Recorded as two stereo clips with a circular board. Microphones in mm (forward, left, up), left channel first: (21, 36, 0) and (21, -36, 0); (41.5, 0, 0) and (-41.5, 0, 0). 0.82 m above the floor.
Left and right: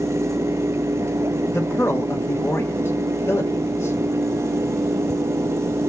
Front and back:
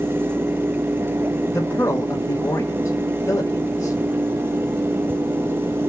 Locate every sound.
1.5 s a man speaking: 45° left, 1.4 m